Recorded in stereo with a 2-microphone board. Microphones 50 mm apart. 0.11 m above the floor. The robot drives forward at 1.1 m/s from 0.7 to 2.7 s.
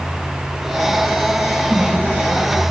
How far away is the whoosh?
About 3 m.